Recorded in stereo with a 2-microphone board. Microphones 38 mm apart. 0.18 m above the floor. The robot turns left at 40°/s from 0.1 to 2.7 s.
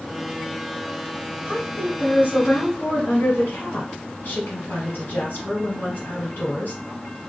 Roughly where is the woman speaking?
Behind left.